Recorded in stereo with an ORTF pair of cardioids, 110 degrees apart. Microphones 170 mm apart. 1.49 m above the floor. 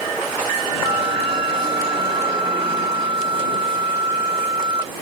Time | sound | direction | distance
0.8 | a flute | 30° right | ?